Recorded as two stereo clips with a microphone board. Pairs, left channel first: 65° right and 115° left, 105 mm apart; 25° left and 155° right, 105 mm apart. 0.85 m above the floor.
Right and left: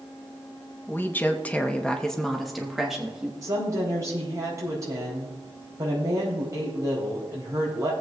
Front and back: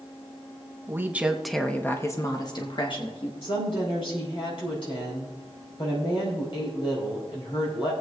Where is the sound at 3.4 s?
55° left, 4 m.